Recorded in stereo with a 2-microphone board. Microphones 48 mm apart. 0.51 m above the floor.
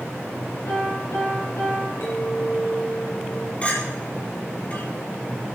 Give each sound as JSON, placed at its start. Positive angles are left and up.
{"t": 0.7, "sound": "a piano", "side_deg": 85, "distance_m": 8.5}
{"t": 2.0, "sound": "a clink", "side_deg": 65, "distance_m": 6.0}
{"t": 3.6, "sound": "a clink", "side_deg": 35, "distance_m": 8.5}